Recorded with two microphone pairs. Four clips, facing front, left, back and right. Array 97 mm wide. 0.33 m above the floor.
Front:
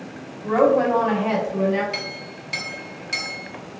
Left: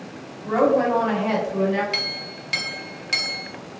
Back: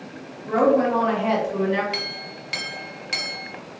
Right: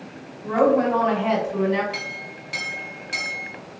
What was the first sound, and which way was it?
A woman speaking, 30° left.